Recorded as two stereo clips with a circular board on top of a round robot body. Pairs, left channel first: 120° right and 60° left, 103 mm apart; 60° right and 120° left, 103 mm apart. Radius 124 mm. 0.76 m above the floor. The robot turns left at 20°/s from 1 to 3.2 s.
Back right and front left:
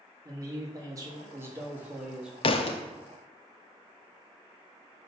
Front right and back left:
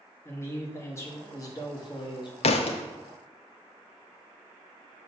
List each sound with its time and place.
0.2 s a man speaking: 5° left, 1.4 m; by 2.3 s 25° right, 1.4 m
2.4 s a thud: 85° right, 0.7 m; by 2.8 s 90° right, 0.7 m